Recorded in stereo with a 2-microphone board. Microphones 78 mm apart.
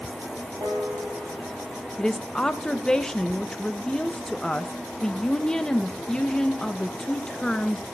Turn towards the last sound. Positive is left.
turn(degrees=10)  # may be behind; listen again after turning